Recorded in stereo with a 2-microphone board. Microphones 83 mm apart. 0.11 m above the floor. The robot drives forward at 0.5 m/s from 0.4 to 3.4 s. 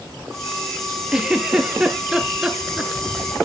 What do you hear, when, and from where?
1.1 s a giggle: 10° right (ahead or behind), 1.7 m